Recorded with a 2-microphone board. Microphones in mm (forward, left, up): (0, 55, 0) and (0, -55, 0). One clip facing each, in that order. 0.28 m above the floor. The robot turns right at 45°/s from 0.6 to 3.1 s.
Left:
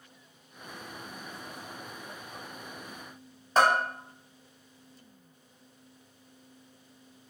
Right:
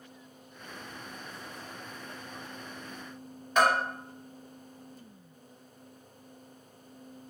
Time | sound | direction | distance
3.6 | a bell | 35° left (ahead or behind) | 0.7 m